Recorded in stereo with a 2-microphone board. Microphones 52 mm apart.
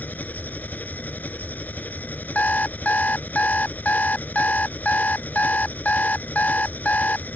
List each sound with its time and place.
0.0 s an engine running: 35° left (ahead or behind)
2.4 s an alarm clock: 30° left (ahead or behind)